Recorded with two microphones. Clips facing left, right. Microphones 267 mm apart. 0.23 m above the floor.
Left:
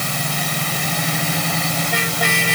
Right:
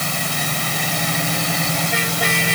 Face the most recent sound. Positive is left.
No sound to turn to.